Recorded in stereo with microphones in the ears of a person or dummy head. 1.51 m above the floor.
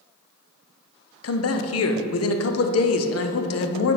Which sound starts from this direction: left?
A man speaking, at 1.2 s.